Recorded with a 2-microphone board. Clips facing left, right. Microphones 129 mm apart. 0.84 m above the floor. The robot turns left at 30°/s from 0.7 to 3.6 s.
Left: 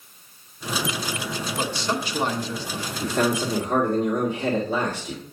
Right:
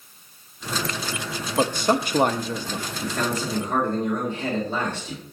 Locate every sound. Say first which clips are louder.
1.6 s a man speaking: right 7 dB; 70° right, 0.8 m; by 2.9 s 110° right, 0.8 m
3.0 s a man speaking: left 5 dB; 25° left (ahead or behind), 2 m; by 5.2 s 10° left (ahead or behind), 2 m